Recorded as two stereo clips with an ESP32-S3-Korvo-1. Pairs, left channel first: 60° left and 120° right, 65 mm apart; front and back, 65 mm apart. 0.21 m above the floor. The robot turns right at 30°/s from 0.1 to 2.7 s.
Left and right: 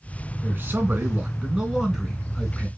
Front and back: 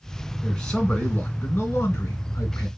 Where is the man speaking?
80° right, 2 m; by 2.7 s 15° right, 2 m.